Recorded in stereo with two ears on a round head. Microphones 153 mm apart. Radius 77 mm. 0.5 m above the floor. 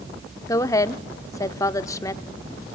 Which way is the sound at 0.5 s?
20° left (ahead or behind).